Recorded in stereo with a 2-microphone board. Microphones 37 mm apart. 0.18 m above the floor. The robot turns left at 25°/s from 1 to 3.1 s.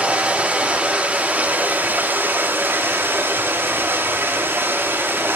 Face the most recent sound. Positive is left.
turn(degrees=-90)